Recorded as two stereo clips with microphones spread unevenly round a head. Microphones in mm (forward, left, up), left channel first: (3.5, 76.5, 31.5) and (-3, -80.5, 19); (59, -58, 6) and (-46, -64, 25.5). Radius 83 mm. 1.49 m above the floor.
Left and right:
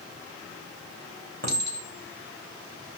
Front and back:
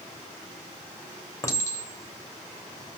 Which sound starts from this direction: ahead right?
A clink, at 1.4 s.